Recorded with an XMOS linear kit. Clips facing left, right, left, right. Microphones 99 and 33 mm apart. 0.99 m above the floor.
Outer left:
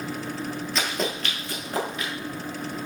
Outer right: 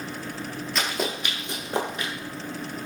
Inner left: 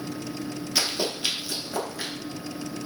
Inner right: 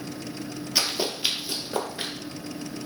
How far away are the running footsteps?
About 1.0 m.